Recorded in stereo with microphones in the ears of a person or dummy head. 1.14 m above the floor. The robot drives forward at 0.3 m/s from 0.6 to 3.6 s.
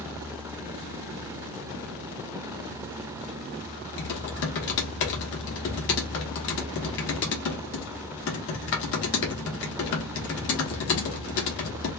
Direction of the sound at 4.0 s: 65° left (ahead or behind).